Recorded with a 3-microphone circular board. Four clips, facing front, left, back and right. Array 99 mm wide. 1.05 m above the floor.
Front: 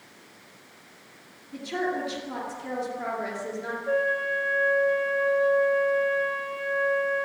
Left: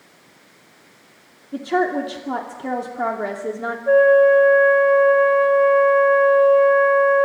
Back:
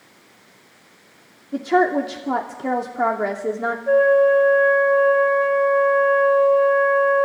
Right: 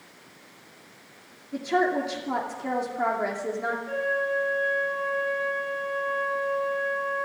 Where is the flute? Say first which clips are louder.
Left 19 dB, back 12 dB; 120° left, 5 m.